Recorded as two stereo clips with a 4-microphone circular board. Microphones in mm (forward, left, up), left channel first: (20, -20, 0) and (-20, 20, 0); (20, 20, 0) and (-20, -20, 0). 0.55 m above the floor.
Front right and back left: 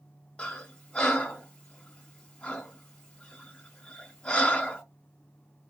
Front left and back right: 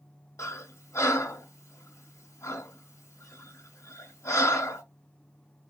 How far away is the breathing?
About 1.0 m.